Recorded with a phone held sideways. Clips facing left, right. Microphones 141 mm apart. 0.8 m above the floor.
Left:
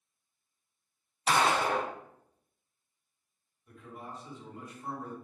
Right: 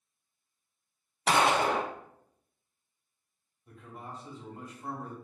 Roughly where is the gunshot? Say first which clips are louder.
Right 2 dB; right.